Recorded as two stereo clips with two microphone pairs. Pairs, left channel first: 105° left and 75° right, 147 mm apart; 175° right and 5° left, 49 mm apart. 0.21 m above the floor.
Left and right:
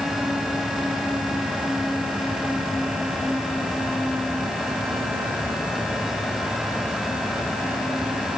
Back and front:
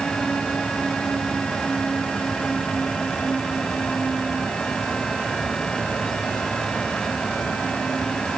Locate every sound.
Only background noise.